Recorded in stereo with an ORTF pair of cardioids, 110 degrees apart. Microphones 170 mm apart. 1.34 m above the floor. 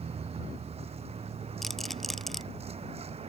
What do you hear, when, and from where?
0.0 s a vehicle: 35° right
1.6 s a rattle: straight ahead